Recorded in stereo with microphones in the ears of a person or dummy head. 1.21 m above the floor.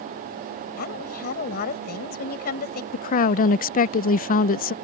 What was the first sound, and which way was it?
A woman speaking, 50° left (ahead or behind).